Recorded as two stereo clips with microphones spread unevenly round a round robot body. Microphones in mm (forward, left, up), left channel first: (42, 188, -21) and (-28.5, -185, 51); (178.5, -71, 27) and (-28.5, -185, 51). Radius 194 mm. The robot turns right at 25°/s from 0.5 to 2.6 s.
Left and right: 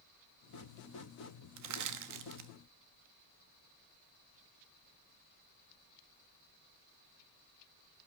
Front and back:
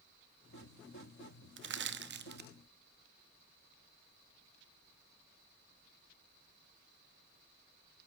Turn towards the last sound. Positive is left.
turn(degrees=-120)